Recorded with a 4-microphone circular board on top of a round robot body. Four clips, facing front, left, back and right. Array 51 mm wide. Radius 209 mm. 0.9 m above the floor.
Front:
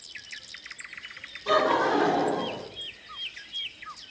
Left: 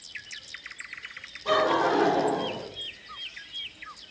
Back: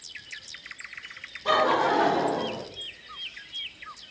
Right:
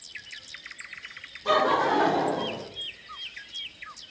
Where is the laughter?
155° right, 1.6 m; by 2.6 s 150° right, 2.5 m.